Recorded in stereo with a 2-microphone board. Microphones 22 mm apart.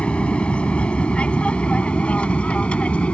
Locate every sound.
0.0 s an aircraft: 65° left (ahead or behind); by 3.1 s 70° left (ahead or behind)